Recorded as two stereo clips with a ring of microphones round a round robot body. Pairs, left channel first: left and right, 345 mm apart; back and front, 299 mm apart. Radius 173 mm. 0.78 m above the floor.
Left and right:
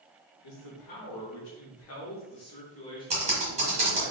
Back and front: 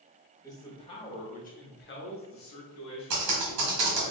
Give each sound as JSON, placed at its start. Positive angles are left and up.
{"t": 0.4, "sound": "a man speaking", "azimuth_deg": 100, "distance_m": 1.6}
{"t": 3.1, "sound": "typing on a keyboard", "azimuth_deg": -20, "distance_m": 1.4}